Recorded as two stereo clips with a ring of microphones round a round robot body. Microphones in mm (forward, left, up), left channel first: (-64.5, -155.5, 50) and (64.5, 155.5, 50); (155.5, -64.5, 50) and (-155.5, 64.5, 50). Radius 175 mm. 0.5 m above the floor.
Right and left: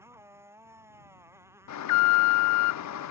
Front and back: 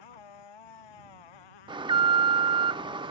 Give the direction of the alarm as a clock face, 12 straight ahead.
4 o'clock.